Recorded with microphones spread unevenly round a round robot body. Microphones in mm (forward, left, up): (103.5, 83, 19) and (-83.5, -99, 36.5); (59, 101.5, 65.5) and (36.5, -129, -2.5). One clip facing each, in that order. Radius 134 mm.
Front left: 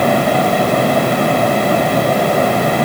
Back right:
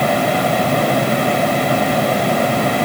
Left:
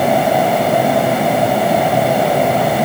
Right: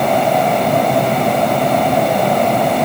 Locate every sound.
Only background noise.